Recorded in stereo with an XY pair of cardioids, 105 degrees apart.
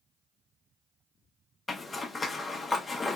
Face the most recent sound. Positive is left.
turn(degrees=30)